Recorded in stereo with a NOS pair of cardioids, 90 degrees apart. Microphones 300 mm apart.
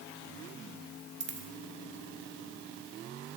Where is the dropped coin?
45° right, 1.4 m.